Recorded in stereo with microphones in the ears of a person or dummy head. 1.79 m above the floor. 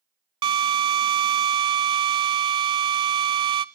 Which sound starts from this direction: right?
A drill, at 0.4 s.